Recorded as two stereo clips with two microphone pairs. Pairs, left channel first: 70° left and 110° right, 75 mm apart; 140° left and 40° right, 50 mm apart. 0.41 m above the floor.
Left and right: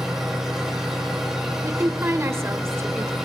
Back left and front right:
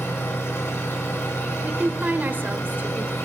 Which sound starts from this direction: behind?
An engine running, at 0.0 s.